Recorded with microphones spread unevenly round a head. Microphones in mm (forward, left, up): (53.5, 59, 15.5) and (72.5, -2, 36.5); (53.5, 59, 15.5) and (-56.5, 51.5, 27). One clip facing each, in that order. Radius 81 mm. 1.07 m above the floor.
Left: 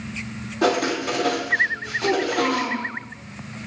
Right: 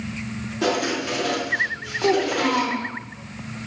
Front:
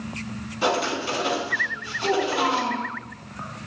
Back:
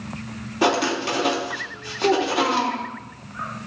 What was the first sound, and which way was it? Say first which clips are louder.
Writing: left 2 dB, back 3 dB; 165° left.